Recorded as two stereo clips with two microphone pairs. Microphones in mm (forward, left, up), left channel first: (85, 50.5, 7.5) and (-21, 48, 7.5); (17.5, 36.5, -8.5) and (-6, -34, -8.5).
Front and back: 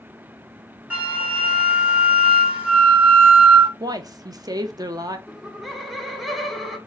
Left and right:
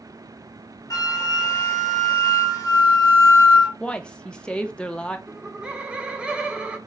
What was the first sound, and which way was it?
A flute, 105° left.